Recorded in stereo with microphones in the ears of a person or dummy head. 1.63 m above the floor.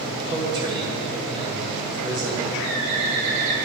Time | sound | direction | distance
0.3 | a man speaking | 25° right (ahead or behind) | 5 m
2.6 | a bird | 60° right (ahead or behind) | 4.5 m